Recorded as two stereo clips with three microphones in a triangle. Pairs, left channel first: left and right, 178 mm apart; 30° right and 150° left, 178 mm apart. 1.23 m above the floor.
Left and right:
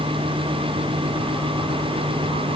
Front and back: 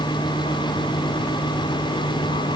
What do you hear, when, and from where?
Only background noise.